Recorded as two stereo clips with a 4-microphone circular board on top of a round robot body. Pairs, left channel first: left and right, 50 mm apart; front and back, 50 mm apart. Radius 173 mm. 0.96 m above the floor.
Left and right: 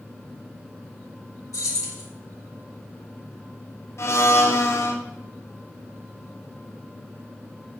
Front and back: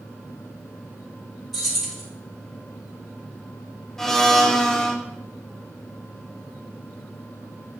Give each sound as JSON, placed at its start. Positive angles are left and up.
{"t": 1.5, "sound": "keys jangling", "azimuth_deg": 95, "distance_m": 1.7}
{"t": 4.0, "sound": "a blender", "azimuth_deg": 80, "distance_m": 1.0}